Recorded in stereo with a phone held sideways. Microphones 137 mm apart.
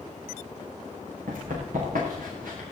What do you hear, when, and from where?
1.3 s running footsteps: 85° right, 6 m; by 2.6 s 80° right, 8 m